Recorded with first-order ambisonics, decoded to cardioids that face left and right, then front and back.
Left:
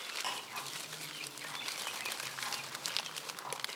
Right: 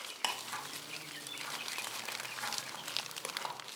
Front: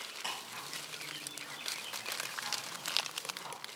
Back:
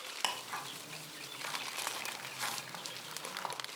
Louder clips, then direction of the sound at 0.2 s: Right 2 dB, back 6 dB; 140° right.